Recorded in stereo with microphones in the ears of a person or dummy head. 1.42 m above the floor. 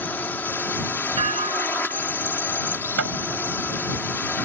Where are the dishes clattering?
35° right (ahead or behind).